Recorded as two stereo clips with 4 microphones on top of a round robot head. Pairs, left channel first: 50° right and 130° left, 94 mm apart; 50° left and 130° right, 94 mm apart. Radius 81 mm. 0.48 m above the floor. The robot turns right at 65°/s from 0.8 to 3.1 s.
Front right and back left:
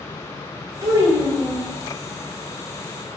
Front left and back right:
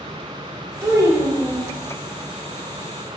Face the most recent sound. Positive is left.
turn(degrees=-35)